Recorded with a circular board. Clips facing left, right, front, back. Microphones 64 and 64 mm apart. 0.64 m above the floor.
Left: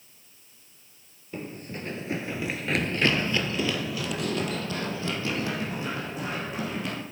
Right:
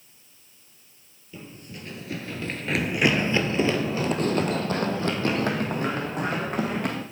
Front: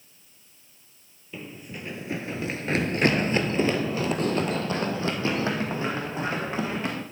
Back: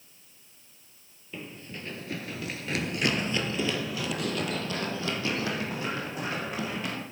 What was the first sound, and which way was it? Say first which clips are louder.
Running footsteps: left 5 dB, front 2 dB; 85° left.